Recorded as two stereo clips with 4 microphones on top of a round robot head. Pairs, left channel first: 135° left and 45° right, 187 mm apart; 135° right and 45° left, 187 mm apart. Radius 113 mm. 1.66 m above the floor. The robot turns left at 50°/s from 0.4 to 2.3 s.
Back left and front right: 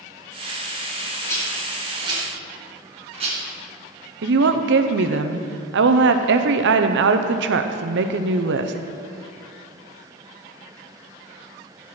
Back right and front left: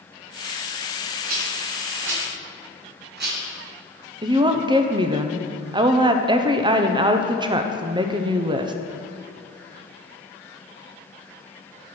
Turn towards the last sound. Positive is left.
turn(degrees=-20)